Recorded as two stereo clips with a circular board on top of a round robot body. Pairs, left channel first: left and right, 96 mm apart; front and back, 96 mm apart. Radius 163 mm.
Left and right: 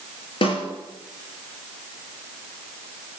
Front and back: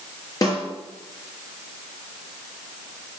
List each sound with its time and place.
0.4 s a snare drum: 55° left, 4 m